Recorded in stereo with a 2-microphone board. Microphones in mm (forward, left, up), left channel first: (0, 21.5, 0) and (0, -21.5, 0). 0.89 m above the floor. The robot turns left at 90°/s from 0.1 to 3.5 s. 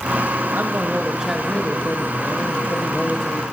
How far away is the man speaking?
About 1.0 m.